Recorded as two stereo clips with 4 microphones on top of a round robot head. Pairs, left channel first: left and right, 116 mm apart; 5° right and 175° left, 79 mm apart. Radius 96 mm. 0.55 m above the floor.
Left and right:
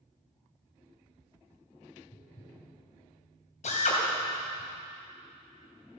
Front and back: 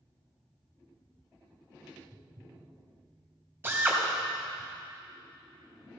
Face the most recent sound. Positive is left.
turn(degrees=110)